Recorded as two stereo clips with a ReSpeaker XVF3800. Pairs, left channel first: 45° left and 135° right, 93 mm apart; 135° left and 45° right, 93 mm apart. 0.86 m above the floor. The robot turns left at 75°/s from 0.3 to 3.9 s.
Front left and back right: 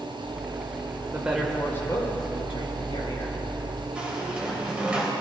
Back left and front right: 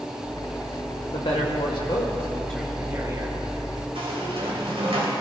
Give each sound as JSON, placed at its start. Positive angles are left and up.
{"t": 1.1, "sound": "a woman speaking", "azimuth_deg": 160, "distance_m": 3.0}
{"t": 4.0, "sound": "a squeak", "azimuth_deg": -55, "distance_m": 3.0}